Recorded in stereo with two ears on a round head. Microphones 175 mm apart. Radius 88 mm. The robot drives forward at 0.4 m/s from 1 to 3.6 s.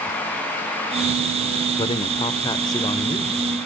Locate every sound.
1.8 s a man speaking: 25° left (ahead or behind), 1.3 m; by 3.4 s 20° left (ahead or behind), 1.7 m